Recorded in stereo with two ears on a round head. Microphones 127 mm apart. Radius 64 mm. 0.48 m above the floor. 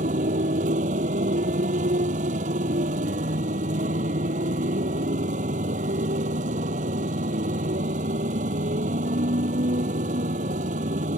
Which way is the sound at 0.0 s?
55° right (ahead or behind).